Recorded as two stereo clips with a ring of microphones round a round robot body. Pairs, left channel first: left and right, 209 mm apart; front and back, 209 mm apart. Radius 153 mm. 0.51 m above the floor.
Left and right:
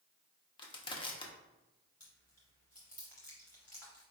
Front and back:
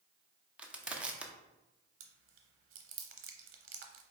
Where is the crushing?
100° left, 0.7 m.